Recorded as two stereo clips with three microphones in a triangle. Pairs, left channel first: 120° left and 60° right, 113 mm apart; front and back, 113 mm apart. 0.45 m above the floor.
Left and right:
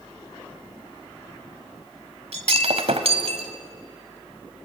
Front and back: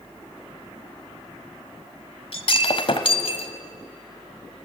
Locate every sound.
2.3 s breaking glass: 35° right, 1.5 m